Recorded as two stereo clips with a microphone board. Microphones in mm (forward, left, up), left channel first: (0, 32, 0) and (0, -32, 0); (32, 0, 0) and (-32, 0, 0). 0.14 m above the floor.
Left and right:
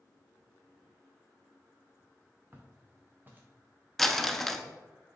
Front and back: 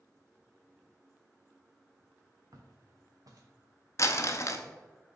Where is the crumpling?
5° left, 0.6 m.